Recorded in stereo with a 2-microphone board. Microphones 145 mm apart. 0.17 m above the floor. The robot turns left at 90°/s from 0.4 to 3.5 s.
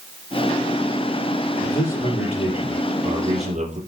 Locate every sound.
1.6 s a man speaking: 110° left, 4.5 m; by 3.8 s 60° right, 4.5 m